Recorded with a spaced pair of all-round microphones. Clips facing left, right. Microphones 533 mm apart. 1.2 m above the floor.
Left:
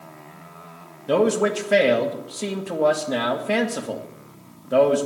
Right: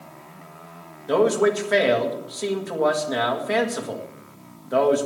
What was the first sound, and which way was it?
A man speaking, 50° left (ahead or behind).